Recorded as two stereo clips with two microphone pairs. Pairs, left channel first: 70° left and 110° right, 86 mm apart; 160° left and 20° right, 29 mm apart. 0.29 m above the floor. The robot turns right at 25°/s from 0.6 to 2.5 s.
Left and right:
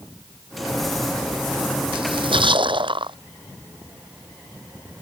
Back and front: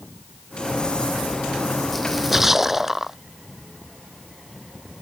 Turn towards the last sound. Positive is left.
turn(degrees=-95)